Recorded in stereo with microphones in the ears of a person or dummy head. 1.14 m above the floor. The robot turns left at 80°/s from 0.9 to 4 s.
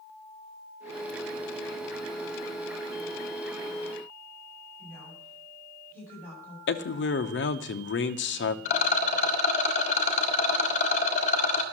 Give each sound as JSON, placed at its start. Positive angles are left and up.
{"t": 4.8, "sound": "a woman speaking", "side_deg": 15, "distance_m": 6.5}
{"t": 6.7, "sound": "a man speaking", "side_deg": 60, "distance_m": 0.8}
{"t": 8.7, "sound": "a rattle", "side_deg": 50, "distance_m": 1.7}